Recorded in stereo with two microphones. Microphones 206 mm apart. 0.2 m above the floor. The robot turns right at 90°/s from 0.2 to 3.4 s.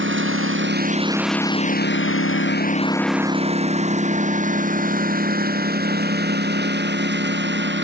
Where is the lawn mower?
70° right (ahead or behind); by 7.8 s 60° right (ahead or behind).